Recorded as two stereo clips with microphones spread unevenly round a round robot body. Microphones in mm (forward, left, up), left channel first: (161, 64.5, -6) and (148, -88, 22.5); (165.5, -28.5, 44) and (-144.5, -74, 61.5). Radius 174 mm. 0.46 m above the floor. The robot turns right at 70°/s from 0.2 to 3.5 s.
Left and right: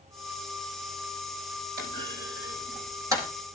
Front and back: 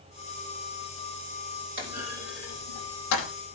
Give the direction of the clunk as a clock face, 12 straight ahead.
4 o'clock.